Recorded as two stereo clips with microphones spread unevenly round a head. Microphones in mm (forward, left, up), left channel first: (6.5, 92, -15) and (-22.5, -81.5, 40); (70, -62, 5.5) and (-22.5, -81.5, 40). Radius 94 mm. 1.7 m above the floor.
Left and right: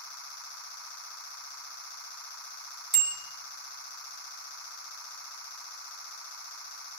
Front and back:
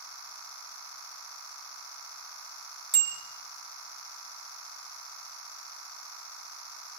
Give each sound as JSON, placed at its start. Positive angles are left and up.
{"t": 2.9, "sound": "a bicycle bell", "azimuth_deg": -140, "distance_m": 3.5}